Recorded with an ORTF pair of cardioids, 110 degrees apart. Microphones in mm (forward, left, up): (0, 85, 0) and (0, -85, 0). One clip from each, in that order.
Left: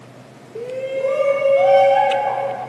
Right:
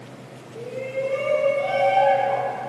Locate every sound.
0.6 s a shout: 50° left, 1.1 m; by 2.5 s 75° left, 2.5 m